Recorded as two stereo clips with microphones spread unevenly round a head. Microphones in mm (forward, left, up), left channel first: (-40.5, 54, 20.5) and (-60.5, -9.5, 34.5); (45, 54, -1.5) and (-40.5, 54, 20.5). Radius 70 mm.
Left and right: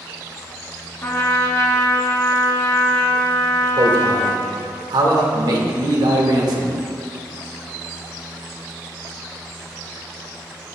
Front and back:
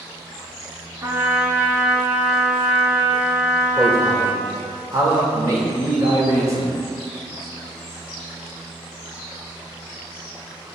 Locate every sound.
1.0 s a trumpet: 125° left, 2 m
3.8 s a man speaking: 110° right, 2 m